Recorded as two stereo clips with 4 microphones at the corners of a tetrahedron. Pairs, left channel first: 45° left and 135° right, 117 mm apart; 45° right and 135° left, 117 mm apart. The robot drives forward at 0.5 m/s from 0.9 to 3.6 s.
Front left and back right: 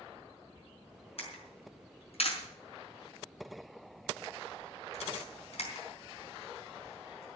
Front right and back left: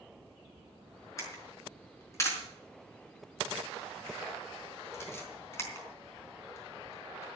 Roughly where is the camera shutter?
Ahead.